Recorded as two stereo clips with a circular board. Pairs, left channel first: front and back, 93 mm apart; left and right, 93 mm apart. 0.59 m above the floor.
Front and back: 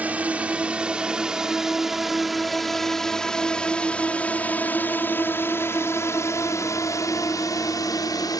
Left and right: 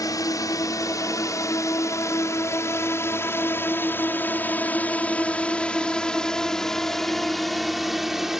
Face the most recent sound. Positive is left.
turn(degrees=-5)